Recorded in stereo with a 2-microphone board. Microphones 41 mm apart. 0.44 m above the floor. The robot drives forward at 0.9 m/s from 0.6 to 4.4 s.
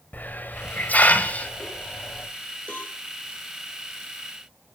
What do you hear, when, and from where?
0.1 s a hiss: 50° left (ahead or behind), 2.0 m; by 2.3 s 30° left (ahead or behind), 3 m
2.7 s a cowbell: 35° left (ahead or behind), 6 m